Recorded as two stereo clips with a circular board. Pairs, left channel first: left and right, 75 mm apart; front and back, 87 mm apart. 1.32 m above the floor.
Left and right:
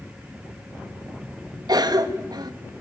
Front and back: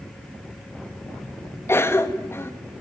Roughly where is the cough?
Ahead right.